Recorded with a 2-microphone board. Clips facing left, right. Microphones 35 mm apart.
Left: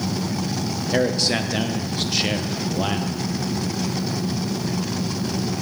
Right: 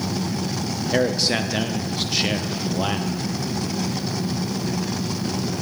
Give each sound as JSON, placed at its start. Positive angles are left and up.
{"t": 0.9, "sound": "a man speaking", "side_deg": -5, "distance_m": 0.6}